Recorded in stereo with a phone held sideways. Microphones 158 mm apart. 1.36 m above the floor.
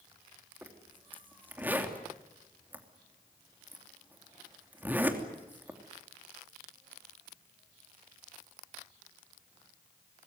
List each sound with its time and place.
0.6 s a zipper: 10° right (ahead or behind), 3 m